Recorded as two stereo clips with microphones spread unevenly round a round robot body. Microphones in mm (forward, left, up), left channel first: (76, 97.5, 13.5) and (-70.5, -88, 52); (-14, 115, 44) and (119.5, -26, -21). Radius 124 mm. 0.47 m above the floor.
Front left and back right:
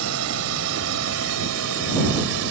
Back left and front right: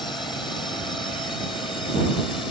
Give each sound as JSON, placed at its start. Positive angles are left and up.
{"t": 0.0, "sound": "a drone", "azimuth_deg": -145}